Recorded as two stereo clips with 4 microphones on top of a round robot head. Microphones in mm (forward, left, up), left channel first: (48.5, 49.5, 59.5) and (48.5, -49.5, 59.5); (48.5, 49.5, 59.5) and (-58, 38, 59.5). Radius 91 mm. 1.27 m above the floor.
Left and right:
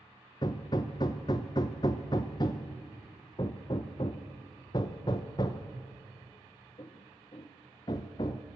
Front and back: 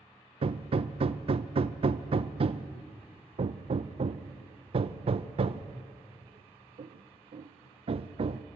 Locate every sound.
0.4 s hammering: 150° left, 0.6 m